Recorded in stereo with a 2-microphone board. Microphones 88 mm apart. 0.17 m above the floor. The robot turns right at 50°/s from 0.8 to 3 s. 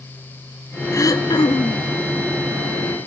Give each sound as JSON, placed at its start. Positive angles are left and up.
{"t": 0.9, "sound": "throat clearing", "azimuth_deg": 40, "distance_m": 0.7}